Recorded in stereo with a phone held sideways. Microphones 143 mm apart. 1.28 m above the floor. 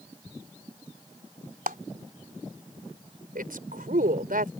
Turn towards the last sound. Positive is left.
turn(degrees=-85)